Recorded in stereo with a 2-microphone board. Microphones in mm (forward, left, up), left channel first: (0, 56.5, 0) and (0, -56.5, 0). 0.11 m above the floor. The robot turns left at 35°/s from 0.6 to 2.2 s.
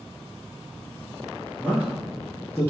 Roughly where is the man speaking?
Centre.